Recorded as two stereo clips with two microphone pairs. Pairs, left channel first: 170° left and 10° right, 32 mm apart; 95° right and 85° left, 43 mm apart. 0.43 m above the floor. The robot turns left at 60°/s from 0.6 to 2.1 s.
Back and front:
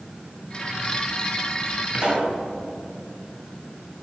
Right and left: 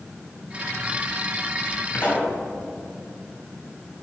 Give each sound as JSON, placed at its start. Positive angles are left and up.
{"t": 1.9, "sound": "a pop", "azimuth_deg": -45, "distance_m": 3.0}